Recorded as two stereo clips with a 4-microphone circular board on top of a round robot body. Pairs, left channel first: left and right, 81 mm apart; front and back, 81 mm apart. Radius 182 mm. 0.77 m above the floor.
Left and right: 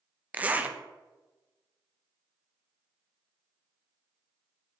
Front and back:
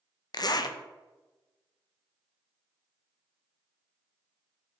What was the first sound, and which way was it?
A zipper, 20° right.